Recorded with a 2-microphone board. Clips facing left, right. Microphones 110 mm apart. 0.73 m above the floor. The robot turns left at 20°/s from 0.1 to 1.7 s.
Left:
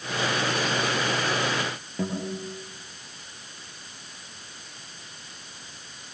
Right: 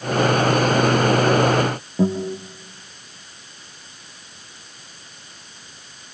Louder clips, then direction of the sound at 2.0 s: Right 9 dB; 20° right (ahead or behind).